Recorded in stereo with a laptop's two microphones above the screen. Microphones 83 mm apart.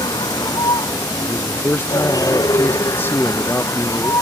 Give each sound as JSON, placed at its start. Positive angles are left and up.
{"t": 0.0, "sound": "a vehicle", "side_deg": 65}
{"t": 1.3, "sound": "a man speaking", "side_deg": 25}